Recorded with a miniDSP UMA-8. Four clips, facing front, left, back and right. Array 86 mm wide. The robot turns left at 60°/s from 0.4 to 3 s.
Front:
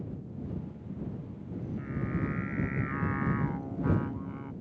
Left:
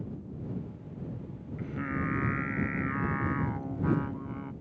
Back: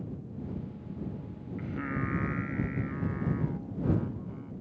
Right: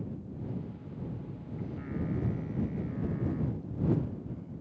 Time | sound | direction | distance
1.6 | singing | 145° left | ?